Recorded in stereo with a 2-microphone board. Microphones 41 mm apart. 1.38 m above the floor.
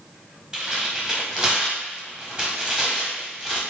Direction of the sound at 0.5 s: 20° right (ahead or behind).